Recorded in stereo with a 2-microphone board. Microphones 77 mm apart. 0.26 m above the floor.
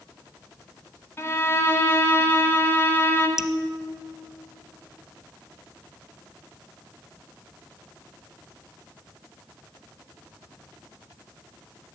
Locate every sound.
1.2 s a violin: 30° left (ahead or behind), 1.3 m
3.4 s dripping: 5° right (ahead or behind), 0.7 m